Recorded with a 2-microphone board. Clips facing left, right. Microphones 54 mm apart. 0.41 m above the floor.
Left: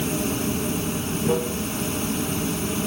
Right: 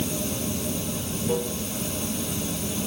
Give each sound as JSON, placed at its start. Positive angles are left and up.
{"t": 0.0, "sound": "running water", "side_deg": 50, "distance_m": 1.0}